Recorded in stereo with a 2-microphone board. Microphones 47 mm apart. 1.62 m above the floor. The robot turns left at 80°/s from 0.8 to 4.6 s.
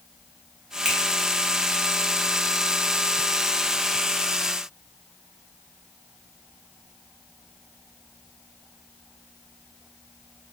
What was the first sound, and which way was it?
A finger snap, 20° right (ahead or behind).